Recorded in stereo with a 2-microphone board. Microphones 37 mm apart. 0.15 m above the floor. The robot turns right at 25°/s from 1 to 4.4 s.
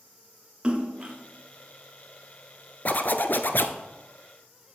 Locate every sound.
0.6 s a splash: 25° right (ahead or behind), 1.5 m
2.9 s a zipper: 50° left (ahead or behind), 0.7 m; by 3.8 s 65° left (ahead or behind), 0.7 m